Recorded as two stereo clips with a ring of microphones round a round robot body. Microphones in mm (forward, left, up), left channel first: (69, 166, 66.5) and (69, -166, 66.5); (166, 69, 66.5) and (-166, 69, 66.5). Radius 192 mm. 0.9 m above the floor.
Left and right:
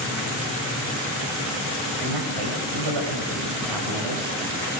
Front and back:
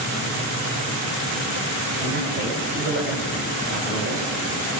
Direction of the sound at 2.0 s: 115° right.